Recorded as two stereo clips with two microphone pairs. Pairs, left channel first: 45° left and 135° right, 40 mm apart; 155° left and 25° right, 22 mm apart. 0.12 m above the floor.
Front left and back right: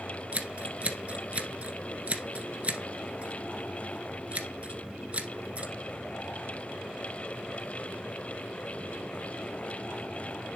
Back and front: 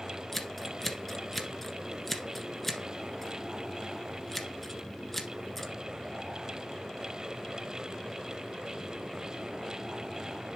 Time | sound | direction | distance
0.3 | scissors | 130° right | 1.6 m